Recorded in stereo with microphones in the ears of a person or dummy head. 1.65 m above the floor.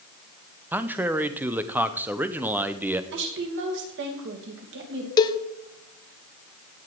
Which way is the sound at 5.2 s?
20° left (ahead or behind).